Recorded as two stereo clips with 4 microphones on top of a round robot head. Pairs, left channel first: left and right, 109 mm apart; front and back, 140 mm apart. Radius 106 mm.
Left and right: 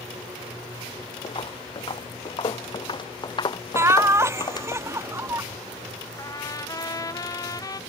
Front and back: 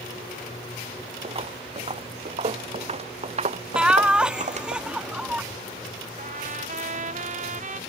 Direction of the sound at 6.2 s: 145° left.